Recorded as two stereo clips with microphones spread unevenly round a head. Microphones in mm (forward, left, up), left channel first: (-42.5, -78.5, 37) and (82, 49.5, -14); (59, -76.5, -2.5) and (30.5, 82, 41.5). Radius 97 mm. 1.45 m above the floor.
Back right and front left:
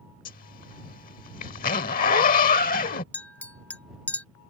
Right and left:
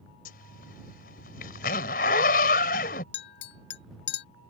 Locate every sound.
0.2 s a zipper: 135° right
3.1 s a clink: 65° right